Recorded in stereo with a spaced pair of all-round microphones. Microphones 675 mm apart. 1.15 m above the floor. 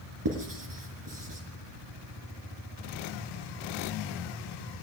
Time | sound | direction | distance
0.2 | writing | 30° right (ahead or behind) | 4 m